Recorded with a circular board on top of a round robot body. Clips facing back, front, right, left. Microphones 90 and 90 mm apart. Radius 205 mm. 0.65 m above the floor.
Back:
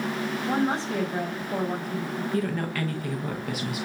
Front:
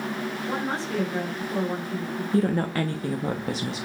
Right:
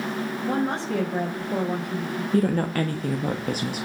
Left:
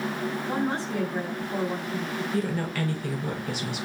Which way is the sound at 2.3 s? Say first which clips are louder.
Front 6 dB, right 8 dB; 55° right.